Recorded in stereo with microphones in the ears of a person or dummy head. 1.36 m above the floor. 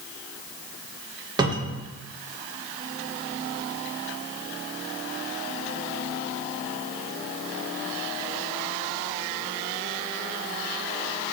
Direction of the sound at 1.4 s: 20° right (ahead or behind).